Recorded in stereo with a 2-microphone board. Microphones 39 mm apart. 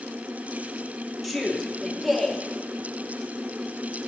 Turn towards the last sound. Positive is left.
turn(degrees=0)  # may be behind; listen again after turning